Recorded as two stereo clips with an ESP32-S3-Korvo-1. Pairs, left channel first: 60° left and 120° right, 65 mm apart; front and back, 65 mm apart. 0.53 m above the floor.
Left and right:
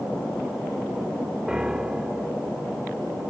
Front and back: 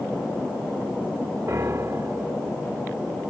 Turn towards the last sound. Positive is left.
turn(degrees=165)